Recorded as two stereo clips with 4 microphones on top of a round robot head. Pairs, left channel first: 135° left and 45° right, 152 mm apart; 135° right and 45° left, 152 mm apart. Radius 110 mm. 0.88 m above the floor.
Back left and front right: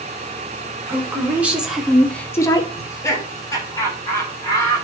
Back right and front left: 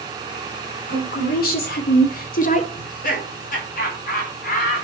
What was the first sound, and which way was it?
A woman speaking, 120° right.